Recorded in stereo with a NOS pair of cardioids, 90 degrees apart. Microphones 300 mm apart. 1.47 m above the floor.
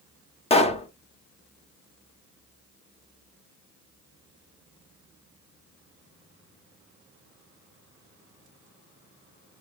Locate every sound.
0.5 s a pop: 20° left, 0.7 m